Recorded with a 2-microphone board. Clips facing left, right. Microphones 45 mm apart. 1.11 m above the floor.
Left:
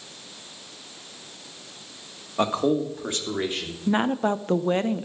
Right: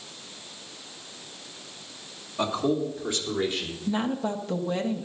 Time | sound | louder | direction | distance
2.4 | a man speaking | left 3 dB | 45° left (ahead or behind) | 1.7 m
3.9 | a woman speaking | left 5 dB | 40° left (ahead or behind) | 0.7 m